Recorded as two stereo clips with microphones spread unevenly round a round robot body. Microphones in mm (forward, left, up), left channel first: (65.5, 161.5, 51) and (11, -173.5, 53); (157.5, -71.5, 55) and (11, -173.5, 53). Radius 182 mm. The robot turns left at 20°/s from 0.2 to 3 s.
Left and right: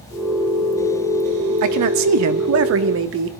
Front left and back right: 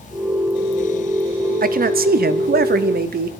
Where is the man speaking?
120° right, 0.9 m; by 3.3 s 145° right, 0.9 m.